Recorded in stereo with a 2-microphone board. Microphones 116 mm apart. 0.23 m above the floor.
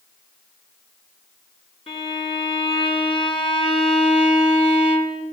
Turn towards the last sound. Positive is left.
turn(degrees=55)  # may be behind; listen again after turning